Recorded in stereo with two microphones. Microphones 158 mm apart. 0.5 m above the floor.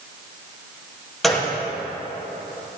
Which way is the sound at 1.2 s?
Centre (ahead or behind).